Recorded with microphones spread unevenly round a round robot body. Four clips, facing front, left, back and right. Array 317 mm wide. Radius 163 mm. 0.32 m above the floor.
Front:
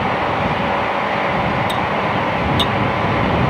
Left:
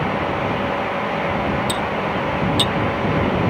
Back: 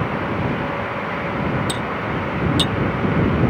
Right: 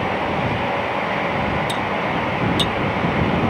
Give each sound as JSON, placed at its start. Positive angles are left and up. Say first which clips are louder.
{"t": 1.7, "sound": "cutlery clinking", "louder": "even, front 6 dB", "azimuth_deg": 160}